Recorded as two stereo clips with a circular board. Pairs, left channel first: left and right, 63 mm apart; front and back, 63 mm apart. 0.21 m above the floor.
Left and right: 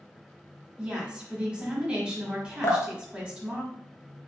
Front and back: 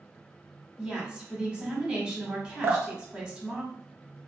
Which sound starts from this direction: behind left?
Dripping, at 2.6 s.